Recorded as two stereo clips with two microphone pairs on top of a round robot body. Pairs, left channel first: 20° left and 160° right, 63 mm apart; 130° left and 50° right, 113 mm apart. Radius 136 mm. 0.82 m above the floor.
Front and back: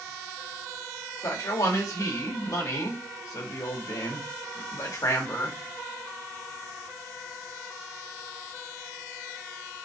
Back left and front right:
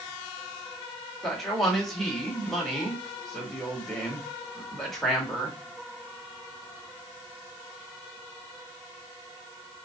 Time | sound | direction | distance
1.2 | a man speaking | 45° left | 1.6 m